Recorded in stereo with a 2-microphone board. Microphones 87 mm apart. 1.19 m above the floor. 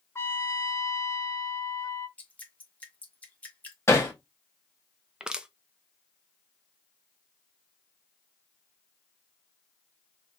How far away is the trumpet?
About 0.8 m.